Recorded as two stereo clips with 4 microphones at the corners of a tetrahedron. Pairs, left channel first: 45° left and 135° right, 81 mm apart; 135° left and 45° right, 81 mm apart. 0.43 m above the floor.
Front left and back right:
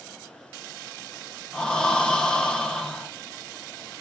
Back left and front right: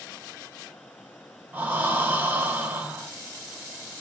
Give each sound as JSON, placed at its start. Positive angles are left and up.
{"t": 1.5, "sound": "breathing", "azimuth_deg": -25, "distance_m": 0.5}